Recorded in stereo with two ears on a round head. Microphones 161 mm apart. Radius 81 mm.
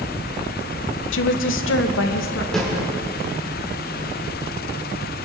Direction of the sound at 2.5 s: 5° left (ahead or behind).